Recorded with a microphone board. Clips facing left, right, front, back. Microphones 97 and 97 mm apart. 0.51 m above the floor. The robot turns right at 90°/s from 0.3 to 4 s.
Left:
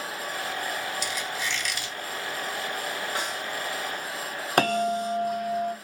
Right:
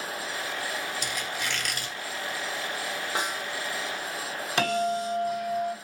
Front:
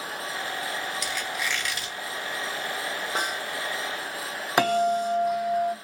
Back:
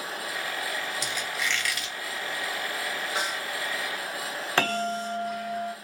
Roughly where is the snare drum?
Ahead right.